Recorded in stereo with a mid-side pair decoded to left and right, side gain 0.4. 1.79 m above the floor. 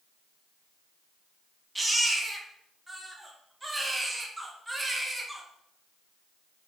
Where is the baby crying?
15° right, 1.8 m.